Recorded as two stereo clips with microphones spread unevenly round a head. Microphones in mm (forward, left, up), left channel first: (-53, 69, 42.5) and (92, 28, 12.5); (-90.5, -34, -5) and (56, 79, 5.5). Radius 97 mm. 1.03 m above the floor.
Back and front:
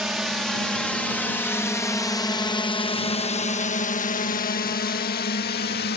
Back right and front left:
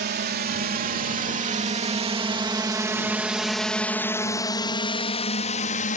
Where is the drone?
70° left; by 6.0 s straight behind.